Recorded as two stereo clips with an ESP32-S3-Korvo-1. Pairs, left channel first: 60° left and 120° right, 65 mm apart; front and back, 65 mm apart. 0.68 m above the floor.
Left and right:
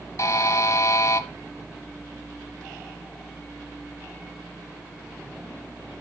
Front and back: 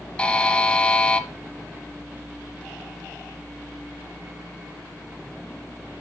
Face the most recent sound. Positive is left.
turn(degrees=70)